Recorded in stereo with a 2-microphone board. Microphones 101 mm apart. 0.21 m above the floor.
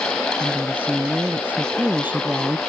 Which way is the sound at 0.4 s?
15° right (ahead or behind).